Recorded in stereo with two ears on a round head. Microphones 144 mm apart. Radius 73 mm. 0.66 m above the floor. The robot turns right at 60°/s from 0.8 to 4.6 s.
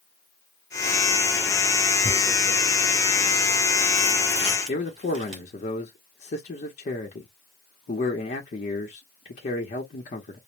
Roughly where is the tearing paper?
Centre.